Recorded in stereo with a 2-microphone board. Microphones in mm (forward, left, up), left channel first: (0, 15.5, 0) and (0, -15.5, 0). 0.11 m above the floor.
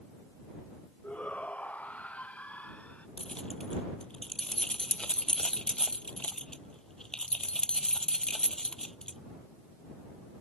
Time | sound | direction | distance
1.0 | a shout | 55° left (ahead or behind) | ?
3.2 | keys jangling | 25° left (ahead or behind) | ?